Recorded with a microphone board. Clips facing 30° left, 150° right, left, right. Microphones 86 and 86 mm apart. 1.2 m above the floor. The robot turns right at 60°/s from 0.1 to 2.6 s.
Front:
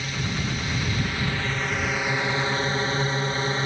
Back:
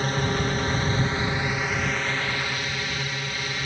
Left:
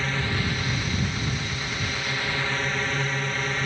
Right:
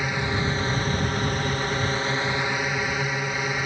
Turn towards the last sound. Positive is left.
turn(degrees=-15)